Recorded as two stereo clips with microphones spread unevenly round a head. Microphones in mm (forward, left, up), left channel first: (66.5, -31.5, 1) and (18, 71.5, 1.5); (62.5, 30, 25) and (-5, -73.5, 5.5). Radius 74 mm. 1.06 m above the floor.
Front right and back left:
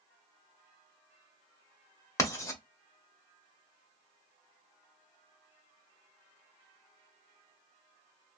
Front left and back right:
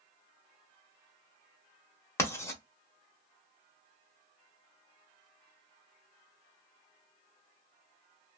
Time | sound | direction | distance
2.2 | writing | 5° right | 1.0 m